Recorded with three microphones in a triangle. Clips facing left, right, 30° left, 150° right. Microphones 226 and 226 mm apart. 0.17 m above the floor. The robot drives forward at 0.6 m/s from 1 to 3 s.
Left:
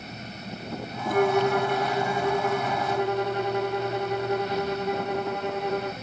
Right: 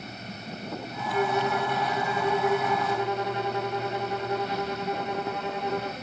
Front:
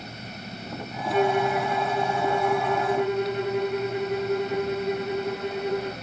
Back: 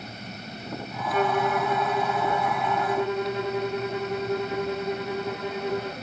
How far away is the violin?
About 0.9 m.